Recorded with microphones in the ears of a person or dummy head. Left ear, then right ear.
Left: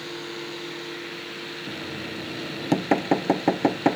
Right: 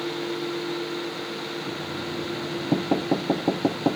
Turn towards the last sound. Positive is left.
turn(degrees=60)  # may be behind; listen again after turning